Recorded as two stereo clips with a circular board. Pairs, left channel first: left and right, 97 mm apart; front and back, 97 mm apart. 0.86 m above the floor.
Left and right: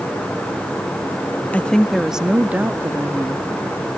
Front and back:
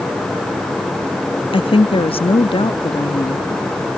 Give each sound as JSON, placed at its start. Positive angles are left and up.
{"t": 1.5, "sound": "a woman speaking", "azimuth_deg": 15, "distance_m": 0.8}